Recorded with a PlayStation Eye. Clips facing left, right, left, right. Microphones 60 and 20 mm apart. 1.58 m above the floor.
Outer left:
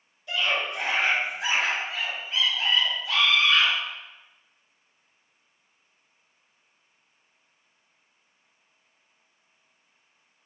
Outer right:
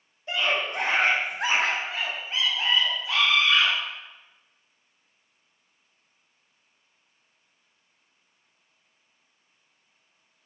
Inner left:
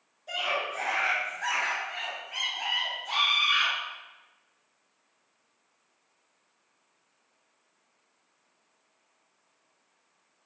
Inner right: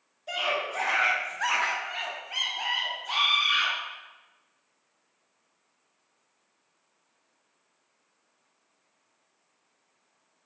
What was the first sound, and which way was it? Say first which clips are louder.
A scream: outer right 1 dB, inner right 1 dB; 35° right (ahead or behind).